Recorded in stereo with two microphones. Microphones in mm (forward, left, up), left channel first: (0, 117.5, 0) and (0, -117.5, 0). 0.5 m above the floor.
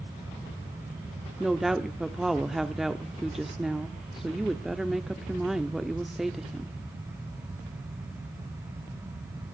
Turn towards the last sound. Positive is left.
turn(degrees=0)  # may be behind; listen again after turning